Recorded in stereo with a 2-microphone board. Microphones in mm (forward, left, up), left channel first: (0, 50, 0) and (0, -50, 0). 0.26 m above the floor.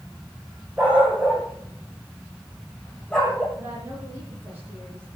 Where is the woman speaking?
25° right (ahead or behind), 10 m.